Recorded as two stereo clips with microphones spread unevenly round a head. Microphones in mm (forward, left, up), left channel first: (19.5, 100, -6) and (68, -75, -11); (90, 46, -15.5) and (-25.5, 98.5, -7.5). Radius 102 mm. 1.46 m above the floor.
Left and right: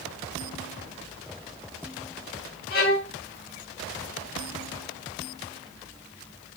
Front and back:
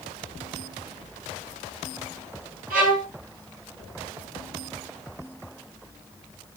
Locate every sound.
2.7 s a violin: 155° left, 2 m